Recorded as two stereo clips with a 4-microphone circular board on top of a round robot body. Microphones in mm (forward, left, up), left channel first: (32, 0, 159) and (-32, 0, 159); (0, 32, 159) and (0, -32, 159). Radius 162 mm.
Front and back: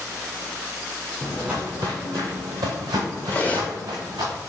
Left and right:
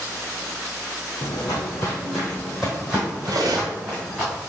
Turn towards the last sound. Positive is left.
turn(degrees=-70)